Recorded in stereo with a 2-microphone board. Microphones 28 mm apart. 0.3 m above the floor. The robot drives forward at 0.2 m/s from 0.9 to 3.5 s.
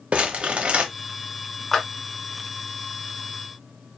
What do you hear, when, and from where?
0.1 s crumpling: 45° right (ahead or behind), 0.8 m
1.7 s a clap: 15° left (ahead or behind), 1.2 m